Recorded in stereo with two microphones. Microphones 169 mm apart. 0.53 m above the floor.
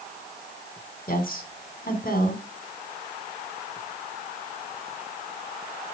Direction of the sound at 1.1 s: 60° left (ahead or behind).